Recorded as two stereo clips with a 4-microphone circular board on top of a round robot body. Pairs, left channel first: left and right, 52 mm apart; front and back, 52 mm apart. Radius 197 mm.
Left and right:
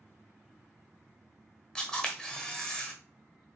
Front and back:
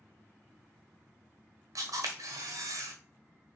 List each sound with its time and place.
1.8 s a camera shutter: 170° left, 1.1 m